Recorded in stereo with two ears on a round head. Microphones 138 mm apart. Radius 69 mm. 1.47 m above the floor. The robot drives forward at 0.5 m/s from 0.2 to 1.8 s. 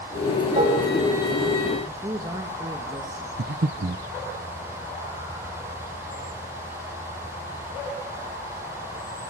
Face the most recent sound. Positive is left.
turn(degrees=-70)  # may be behind; listen again after turning